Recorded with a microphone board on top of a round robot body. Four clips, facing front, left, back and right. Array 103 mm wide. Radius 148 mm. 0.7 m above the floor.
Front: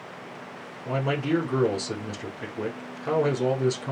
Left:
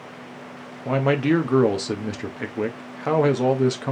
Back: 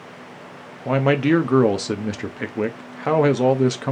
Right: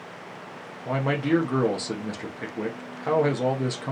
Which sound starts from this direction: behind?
A man speaking, at 0.8 s.